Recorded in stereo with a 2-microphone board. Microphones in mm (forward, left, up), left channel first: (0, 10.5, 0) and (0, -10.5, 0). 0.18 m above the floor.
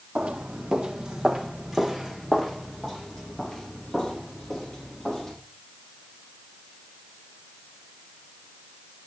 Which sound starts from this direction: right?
Footsteps, at 0.1 s.